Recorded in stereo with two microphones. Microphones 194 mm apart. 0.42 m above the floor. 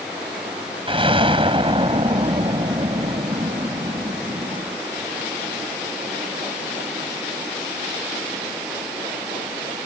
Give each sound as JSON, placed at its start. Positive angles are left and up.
{"t": 0.9, "sound": "an explosion", "side_deg": -30}